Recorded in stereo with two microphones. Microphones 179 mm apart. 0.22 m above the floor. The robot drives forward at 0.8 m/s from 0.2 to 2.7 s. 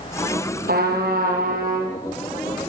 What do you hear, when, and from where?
0.7 s a trumpet: 60° right (ahead or behind), 5.5 m; by 2.0 s 50° right (ahead or behind), 6 m